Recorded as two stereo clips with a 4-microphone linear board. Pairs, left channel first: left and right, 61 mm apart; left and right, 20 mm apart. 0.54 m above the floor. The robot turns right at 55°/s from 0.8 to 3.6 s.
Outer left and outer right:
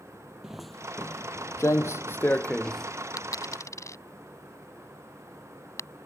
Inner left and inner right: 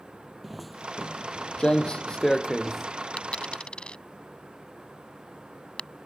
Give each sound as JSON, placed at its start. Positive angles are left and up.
{"t": 0.4, "sound": "footsteps", "side_deg": -10}
{"t": 3.2, "sound": "a dropped coin", "side_deg": 85}